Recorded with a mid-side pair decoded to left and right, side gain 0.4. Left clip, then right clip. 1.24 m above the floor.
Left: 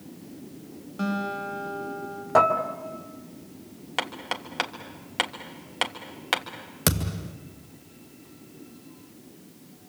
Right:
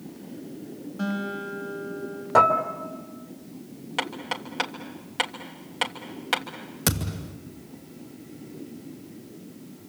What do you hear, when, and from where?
1.0 s a guitar: 45° left, 6 m
2.4 s dishes clattering: 5° right, 2.5 m
4.0 s hammering: 25° left, 3 m
6.9 s a thud: 30° left, 2.5 m